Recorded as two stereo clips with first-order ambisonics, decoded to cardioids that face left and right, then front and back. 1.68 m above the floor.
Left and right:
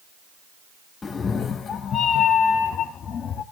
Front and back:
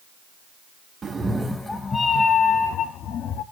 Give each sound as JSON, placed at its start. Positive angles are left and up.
{"t": 1.0, "sound": "a cat meowing", "azimuth_deg": 140, "distance_m": 0.9}